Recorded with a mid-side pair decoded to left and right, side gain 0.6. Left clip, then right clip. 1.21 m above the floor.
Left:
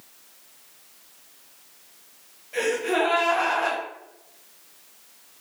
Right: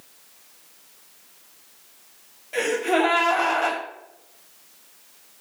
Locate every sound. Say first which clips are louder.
2.5 s a gasp: right 2 dB; 35° right, 1.1 m